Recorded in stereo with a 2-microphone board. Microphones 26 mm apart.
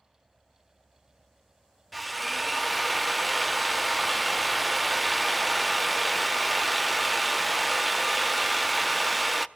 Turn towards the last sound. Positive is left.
turn(degrees=0)  # may be behind; listen again after turning